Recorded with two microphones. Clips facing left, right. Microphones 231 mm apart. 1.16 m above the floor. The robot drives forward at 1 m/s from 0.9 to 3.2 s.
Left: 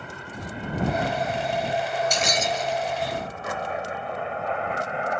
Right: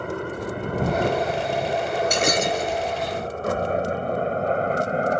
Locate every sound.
0.0 s a helicopter: 65° right (ahead or behind); by 5.2 s 40° right (ahead or behind)
2.1 s breaking glass: 65° right (ahead or behind); by 2.8 s 60° right (ahead or behind)